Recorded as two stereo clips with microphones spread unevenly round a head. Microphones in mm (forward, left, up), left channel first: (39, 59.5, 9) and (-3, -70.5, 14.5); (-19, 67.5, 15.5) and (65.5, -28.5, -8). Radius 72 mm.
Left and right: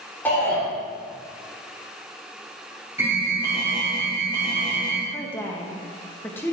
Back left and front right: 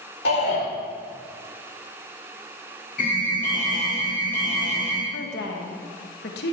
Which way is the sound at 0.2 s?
150° left.